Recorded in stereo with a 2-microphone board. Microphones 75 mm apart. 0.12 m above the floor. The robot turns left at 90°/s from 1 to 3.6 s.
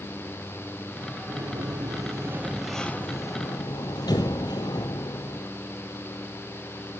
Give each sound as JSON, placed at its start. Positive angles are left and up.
{"t": 1.3, "sound": "a sliding door", "azimuth_deg": -55, "distance_m": 1.6}